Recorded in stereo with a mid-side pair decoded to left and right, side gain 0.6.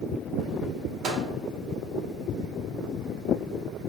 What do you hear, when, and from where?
1.0 s a microwave: 40° right, 1.0 m